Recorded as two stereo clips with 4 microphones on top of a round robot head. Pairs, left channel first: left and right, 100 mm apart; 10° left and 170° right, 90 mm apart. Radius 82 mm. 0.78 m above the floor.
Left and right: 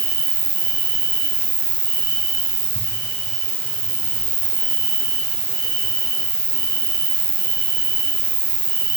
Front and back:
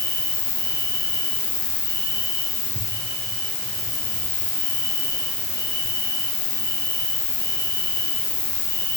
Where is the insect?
45° right, 6.5 m.